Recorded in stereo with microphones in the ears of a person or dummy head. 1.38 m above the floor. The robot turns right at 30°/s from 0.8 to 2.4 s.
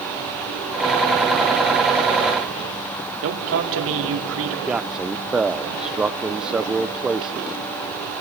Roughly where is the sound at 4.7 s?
Centre.